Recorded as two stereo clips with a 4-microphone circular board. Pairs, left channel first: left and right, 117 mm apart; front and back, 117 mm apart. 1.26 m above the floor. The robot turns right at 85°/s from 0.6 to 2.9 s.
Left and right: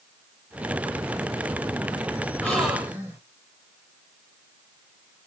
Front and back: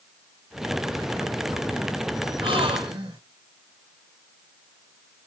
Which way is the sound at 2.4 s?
165° left.